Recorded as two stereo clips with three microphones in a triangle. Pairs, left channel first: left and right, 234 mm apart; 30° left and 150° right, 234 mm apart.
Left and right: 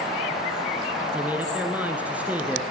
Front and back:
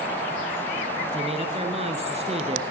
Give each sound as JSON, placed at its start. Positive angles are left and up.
{"t": 1.1, "sound": "a man speaking", "azimuth_deg": -165, "distance_m": 1.3}